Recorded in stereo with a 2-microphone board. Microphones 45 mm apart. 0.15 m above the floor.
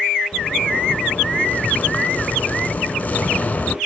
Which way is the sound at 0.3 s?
35° left (ahead or behind).